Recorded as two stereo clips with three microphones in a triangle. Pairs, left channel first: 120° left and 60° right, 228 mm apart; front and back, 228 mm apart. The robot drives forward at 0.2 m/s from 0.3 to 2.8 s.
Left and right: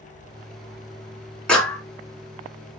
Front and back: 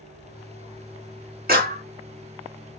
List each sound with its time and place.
1.5 s a clap: 155° right, 1.7 m